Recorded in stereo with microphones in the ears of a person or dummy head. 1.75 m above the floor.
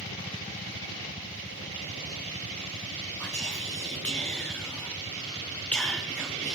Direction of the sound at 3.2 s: 5° left (ahead or behind).